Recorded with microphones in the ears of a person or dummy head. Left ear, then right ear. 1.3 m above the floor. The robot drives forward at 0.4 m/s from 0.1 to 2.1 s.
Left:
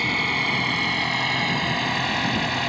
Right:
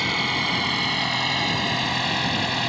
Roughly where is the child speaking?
No child speaking in this recording.